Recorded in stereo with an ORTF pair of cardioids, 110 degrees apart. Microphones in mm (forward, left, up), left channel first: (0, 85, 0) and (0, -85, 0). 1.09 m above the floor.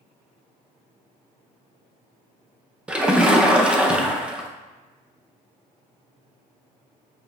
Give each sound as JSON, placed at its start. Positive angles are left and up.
{"t": 2.9, "sound": "a splash", "azimuth_deg": -5, "distance_m": 0.5}